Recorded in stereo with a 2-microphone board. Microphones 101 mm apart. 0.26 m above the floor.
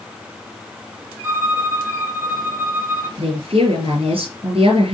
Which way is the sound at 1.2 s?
20° right (ahead or behind).